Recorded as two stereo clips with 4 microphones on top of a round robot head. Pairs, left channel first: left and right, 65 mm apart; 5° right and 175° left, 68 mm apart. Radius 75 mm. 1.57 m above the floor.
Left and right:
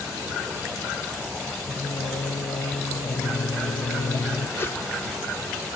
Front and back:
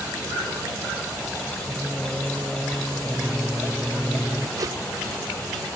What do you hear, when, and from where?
1.7 s singing: 95° left
4.6 s a whoosh: 140° left